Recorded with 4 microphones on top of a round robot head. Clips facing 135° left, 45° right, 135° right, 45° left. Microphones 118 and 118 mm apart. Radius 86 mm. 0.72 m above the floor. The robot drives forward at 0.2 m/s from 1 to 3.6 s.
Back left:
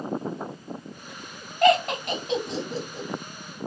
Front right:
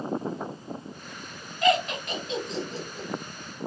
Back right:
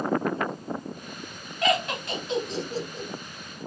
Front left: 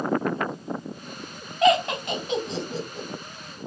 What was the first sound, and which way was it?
Laughter, 110° left.